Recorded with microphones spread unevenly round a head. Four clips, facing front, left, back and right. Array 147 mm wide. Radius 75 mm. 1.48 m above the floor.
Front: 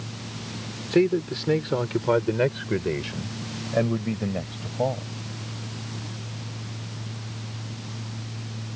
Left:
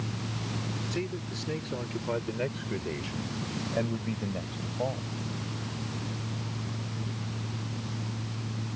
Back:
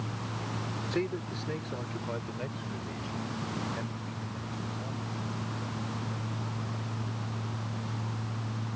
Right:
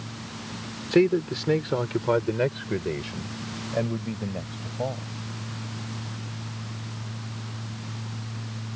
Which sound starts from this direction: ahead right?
A man speaking, at 0.9 s.